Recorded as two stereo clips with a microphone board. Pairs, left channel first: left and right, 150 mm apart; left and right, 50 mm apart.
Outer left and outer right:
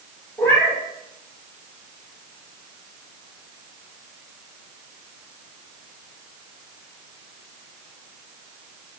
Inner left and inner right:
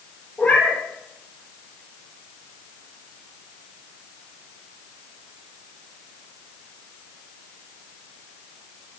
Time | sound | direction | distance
0.4 | a cat meowing | 10° left (ahead or behind) | 7.5 m